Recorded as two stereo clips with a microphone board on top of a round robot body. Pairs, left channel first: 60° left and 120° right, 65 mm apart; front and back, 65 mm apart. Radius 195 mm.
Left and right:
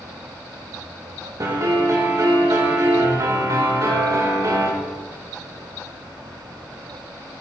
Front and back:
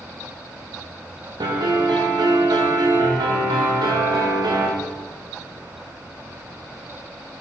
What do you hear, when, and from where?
1.4 s a piano: 165° right, 1.0 m